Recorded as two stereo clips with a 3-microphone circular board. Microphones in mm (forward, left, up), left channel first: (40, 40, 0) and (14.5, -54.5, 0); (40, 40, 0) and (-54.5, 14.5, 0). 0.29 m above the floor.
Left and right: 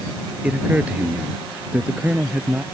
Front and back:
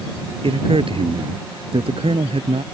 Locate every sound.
0.4 s a man speaking: straight behind